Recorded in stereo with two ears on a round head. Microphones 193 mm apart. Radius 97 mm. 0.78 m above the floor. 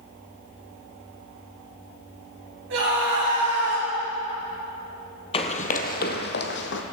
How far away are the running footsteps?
About 1.0 m.